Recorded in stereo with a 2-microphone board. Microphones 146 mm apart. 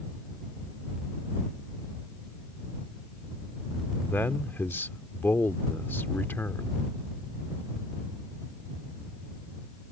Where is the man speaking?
15° left (ahead or behind).